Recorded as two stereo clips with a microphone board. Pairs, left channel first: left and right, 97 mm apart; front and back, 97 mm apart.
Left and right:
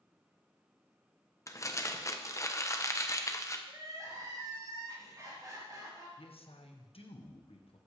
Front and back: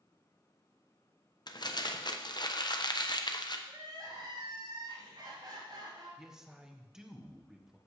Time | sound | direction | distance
1.5 | crumpling | 35° left | 0.8 m
3.7 | crying | 140° right | 3 m
6.2 | a man speaking | 95° left | 1.2 m